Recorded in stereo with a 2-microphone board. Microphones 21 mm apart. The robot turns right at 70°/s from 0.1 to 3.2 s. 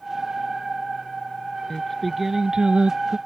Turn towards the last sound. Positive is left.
turn(degrees=-105)